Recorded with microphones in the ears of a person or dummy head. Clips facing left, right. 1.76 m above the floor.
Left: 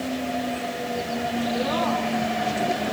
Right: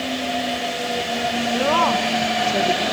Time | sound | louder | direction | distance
1.5 | a woman speaking | right 7 dB | 75° right (ahead or behind) | 2.5 m